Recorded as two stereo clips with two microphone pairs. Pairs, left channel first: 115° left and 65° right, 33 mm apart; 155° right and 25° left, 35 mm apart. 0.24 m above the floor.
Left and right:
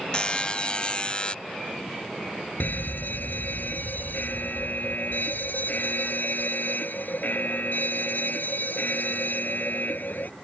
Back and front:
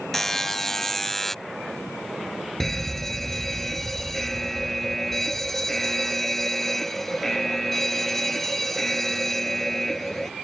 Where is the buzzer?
130° left.